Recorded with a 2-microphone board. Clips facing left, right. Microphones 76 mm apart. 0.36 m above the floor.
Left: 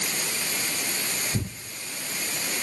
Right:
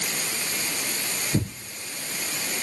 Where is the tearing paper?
30° right (ahead or behind), 2.5 m.